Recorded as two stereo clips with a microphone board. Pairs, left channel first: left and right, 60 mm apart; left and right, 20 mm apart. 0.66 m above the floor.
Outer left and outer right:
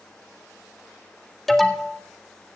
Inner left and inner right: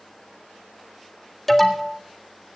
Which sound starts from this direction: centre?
An alarm, at 1.5 s.